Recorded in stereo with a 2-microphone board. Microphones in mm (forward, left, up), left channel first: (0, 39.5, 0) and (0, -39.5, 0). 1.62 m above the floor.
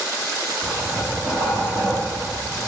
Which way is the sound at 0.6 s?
45° left (ahead or behind).